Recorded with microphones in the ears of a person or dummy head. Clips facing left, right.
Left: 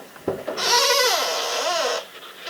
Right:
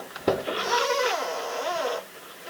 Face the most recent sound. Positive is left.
No sound to turn to.